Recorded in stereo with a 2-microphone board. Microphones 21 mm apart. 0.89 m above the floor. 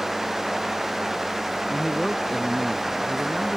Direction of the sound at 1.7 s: 15° left (ahead or behind).